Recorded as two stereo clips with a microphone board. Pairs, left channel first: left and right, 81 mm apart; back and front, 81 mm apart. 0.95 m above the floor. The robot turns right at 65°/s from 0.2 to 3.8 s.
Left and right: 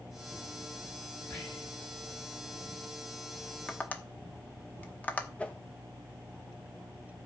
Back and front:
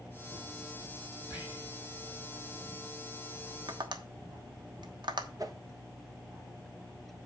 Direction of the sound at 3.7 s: 10° left.